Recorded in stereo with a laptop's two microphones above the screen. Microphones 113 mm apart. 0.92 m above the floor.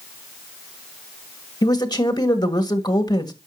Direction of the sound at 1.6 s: 40° left (ahead or behind).